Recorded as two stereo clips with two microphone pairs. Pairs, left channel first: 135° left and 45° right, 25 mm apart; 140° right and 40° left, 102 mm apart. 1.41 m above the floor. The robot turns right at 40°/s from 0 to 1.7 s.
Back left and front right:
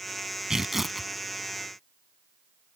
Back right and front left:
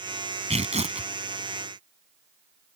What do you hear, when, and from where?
0.5 s tearing paper: 25° left; by 1.1 s 50° left